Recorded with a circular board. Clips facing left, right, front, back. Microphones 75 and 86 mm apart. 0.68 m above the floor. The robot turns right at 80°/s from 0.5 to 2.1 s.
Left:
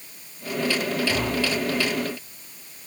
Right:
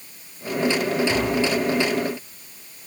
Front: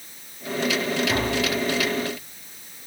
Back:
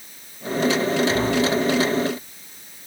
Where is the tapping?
65° right, 4.5 m; by 1.5 s 35° right, 4.5 m.